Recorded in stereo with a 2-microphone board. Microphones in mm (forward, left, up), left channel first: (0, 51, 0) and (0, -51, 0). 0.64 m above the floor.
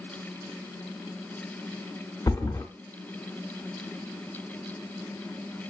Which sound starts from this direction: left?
A thud, at 2.3 s.